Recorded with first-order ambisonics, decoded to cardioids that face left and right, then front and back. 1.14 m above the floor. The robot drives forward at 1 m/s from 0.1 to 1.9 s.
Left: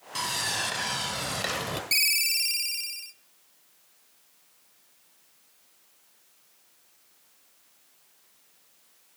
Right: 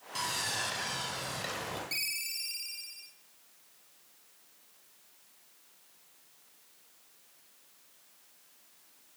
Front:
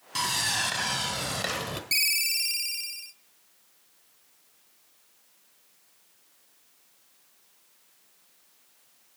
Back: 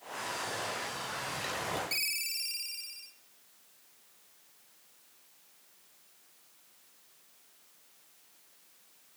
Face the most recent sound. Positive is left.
turn(degrees=50)